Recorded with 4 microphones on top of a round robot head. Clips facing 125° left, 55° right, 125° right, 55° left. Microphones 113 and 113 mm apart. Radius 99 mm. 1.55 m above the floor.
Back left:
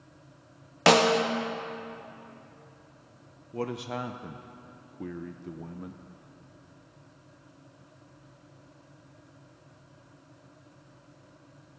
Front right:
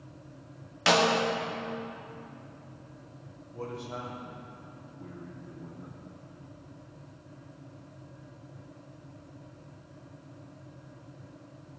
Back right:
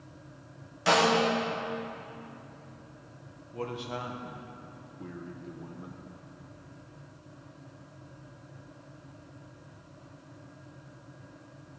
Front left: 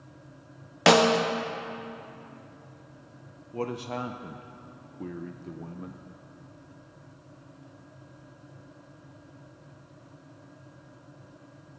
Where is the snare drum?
80° left, 1.0 m.